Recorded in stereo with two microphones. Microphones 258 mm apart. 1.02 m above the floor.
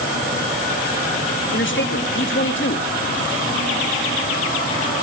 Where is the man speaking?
50° left (ahead or behind), 1.3 m.